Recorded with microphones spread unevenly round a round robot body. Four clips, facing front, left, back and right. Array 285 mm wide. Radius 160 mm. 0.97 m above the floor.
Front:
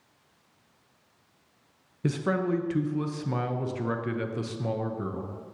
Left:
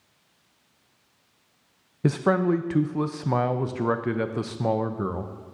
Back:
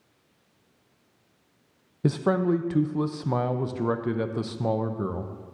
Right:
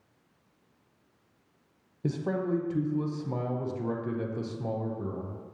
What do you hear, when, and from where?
2.0 s a man speaking: 105° left, 0.7 m